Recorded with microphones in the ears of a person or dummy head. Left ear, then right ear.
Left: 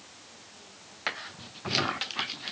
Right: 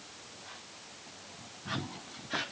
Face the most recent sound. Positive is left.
No sound to turn to.